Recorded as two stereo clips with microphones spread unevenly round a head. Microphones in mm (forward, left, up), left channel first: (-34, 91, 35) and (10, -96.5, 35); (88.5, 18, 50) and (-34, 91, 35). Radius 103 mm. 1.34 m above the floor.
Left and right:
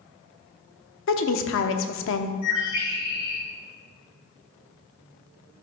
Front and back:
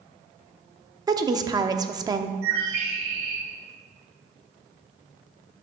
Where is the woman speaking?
85° left, 0.8 m.